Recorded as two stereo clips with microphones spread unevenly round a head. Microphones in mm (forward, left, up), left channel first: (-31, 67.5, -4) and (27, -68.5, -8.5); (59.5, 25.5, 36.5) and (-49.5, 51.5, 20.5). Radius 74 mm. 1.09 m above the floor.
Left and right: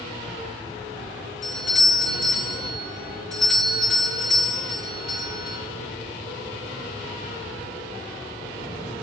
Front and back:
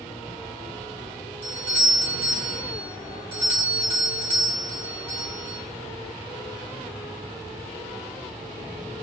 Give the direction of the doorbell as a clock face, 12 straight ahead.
5 o'clock.